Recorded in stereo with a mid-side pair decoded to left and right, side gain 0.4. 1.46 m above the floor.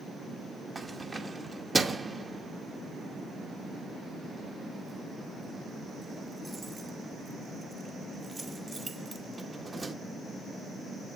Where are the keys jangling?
30° right, 2.5 m.